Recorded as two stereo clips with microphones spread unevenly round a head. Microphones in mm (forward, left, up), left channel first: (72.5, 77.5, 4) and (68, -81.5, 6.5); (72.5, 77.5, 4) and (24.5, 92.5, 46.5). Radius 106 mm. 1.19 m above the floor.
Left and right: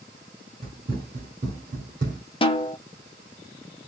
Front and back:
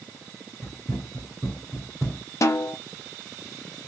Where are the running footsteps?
135° right, 1.5 m.